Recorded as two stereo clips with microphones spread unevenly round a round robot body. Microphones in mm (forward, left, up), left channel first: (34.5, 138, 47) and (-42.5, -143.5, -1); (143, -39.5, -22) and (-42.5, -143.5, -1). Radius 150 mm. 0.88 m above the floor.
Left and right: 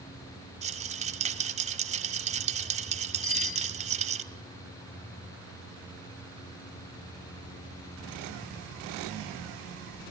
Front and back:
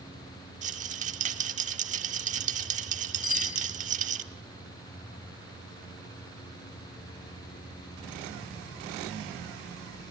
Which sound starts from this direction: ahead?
A bicycle bell, at 3.2 s.